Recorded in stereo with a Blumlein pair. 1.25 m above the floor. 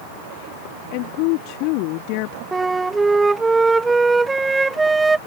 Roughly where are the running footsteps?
I don't hear running footsteps.